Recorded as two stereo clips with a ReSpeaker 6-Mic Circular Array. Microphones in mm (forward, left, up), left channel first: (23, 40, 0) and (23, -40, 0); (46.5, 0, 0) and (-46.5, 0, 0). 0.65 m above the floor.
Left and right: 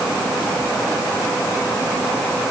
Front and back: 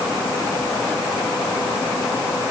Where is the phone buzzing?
No phone buzzing in this recording.